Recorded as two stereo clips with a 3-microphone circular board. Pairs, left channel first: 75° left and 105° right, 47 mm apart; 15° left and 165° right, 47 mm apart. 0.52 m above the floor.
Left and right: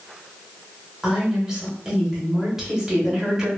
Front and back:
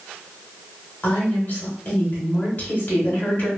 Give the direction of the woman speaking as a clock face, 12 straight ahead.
1 o'clock.